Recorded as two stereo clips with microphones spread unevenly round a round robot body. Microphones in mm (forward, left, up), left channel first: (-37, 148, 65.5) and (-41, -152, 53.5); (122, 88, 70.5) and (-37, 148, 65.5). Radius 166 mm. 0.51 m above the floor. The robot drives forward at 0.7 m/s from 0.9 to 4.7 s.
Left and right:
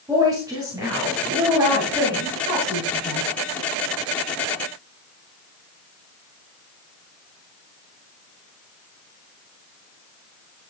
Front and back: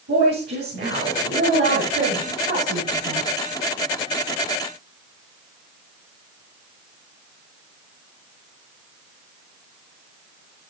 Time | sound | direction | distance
0.1 | a woman speaking | 175° right | 9 m